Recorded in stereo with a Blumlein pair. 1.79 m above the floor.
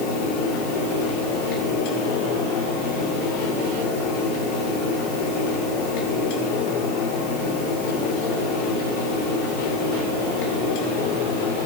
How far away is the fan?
About 1.8 m.